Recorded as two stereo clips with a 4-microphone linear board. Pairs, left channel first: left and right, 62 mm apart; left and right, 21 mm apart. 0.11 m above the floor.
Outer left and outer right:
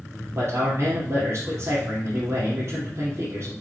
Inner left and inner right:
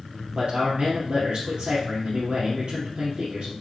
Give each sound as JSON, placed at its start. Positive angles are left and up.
{"t": 0.3, "sound": "a man speaking", "side_deg": -55, "distance_m": 3.0}